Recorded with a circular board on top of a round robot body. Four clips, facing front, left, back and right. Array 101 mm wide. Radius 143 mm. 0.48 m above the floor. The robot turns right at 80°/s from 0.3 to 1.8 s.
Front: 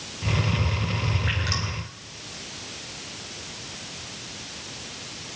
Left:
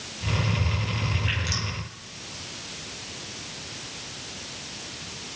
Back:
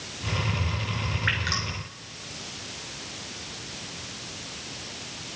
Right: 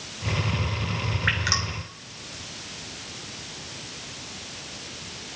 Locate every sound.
1.3 s dripping: 120° right, 2.5 m; by 1.6 s 90° right, 2.5 m